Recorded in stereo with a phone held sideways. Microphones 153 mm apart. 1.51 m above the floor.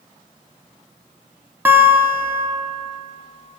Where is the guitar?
15° right (ahead or behind), 0.7 m.